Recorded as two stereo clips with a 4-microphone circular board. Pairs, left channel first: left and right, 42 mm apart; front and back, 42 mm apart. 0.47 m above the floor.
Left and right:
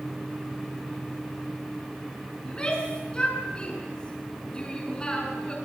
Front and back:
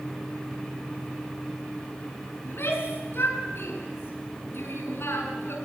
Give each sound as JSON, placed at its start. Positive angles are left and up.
{"t": 2.4, "sound": "a shout", "azimuth_deg": 20, "distance_m": 6.5}